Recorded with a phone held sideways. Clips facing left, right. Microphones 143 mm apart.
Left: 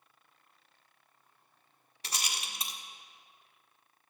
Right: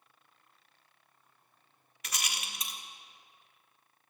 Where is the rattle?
30° left (ahead or behind), 1.3 m.